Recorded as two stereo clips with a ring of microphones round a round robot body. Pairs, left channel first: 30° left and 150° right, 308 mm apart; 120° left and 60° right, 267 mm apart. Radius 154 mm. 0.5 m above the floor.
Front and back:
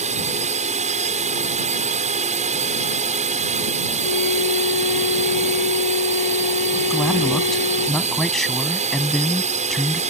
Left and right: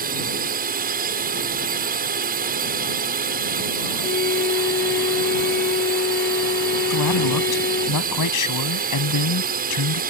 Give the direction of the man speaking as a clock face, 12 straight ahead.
8 o'clock.